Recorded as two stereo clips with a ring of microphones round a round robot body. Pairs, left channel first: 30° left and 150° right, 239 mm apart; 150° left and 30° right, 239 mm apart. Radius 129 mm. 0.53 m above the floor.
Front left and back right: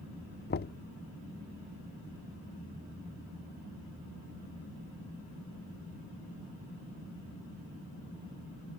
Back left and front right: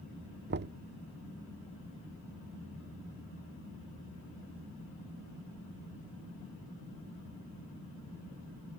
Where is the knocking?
5° right.